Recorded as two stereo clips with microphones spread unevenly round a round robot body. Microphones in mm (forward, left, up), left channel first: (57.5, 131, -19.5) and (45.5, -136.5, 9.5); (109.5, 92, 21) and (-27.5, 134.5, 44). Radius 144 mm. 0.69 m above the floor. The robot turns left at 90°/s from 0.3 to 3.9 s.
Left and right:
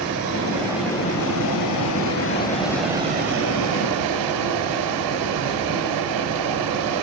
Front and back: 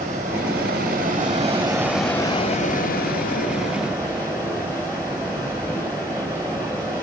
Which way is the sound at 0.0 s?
135° right.